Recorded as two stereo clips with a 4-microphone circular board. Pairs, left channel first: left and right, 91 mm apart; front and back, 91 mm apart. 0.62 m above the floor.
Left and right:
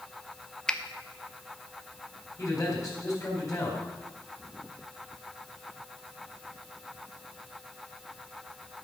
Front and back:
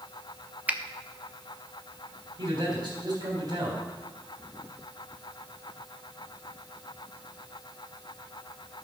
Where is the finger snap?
155° left, 0.6 m.